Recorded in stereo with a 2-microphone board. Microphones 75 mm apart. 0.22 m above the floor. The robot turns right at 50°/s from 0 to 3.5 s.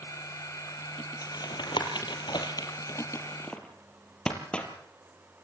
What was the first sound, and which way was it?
Tapping, 50° left (ahead or behind).